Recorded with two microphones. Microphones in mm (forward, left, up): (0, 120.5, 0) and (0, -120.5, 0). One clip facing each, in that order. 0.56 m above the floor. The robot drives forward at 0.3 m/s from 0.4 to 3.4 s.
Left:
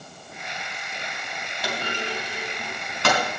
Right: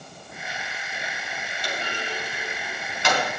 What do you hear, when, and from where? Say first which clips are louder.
1.6 s a clunk: left 3 dB; 60° left (ahead or behind), 3 m; by 3.2 s 55° left (ahead or behind), 3 m